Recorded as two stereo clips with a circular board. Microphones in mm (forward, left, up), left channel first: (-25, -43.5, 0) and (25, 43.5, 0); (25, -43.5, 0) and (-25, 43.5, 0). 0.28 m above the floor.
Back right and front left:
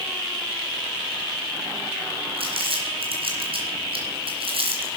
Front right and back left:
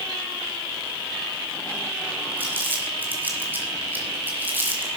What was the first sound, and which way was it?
Crumpling, 50° left.